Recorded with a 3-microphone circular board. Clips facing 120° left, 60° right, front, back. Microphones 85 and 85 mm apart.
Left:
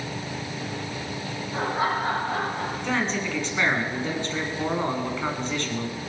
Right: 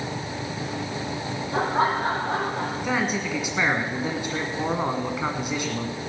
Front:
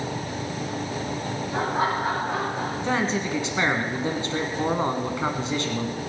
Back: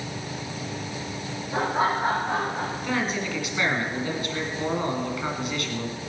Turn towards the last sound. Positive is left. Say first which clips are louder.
# even, front 4 dB
turn(degrees=5)